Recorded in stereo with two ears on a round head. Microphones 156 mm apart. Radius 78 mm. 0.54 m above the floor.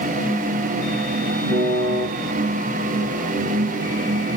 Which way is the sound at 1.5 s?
60° left (ahead or behind).